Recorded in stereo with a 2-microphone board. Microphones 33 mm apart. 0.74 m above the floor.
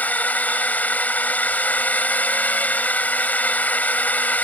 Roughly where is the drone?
Left.